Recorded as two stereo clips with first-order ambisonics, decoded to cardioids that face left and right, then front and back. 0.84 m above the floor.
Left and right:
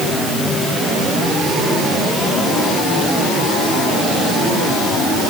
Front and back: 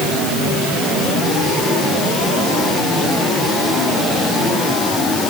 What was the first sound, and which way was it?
Only background noise.